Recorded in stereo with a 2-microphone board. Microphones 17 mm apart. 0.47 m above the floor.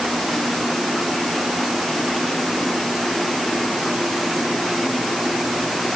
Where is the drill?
I don't hear a drill.